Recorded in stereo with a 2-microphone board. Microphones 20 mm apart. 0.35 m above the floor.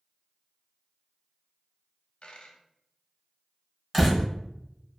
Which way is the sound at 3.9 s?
5° left (ahead or behind).